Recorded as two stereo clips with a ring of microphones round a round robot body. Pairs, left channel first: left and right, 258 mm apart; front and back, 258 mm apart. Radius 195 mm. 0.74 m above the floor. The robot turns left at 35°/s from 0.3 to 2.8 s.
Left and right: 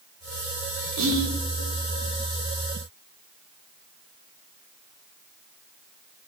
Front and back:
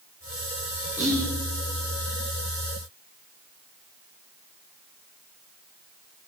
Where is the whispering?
100° right, 2 m; by 1.3 s 110° right, 2 m.